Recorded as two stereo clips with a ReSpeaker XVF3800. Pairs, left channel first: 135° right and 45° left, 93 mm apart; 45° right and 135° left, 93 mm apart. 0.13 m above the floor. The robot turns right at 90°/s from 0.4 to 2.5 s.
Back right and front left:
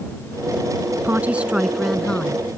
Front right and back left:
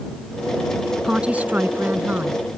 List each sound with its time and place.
1.0 s a woman speaking: 65° left; by 2.4 s 170° right